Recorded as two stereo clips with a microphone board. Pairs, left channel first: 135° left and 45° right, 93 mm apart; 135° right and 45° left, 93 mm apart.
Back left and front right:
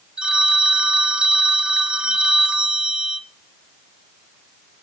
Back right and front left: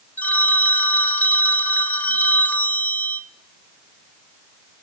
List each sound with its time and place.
0.2 s a phone ringing: 105° right, 0.8 m